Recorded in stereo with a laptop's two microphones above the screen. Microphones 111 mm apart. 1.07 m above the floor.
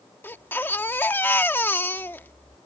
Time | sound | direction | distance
0.2 | a baby crying | 20° left (ahead or behind) | ?